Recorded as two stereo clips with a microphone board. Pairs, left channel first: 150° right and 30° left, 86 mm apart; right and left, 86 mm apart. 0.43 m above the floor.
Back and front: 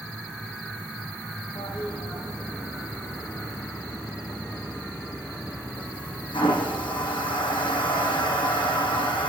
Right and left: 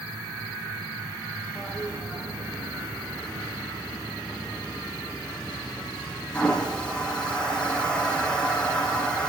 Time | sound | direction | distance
1.6 | a toilet flushing | 170° right | 4 m